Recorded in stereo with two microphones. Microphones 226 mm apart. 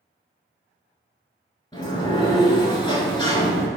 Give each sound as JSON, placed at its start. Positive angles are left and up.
{"t": 1.7, "sound": "a sliding door", "side_deg": 20, "distance_m": 0.8}